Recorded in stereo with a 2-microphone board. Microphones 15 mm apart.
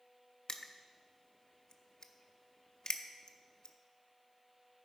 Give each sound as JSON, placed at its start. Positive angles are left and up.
{"t": 0.5, "sound": "crushing", "side_deg": 40, "distance_m": 0.7}